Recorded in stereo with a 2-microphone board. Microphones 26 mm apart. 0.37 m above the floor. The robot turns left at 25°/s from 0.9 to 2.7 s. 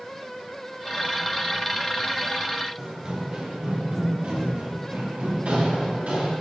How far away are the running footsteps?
About 3 m.